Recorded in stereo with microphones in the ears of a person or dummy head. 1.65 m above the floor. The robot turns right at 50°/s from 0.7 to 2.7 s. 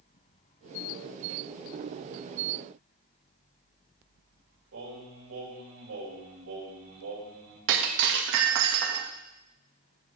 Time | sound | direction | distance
4.7 | singing | 80° right | 8 m
7.7 | breaking glass | 60° right (ahead or behind) | 1.5 m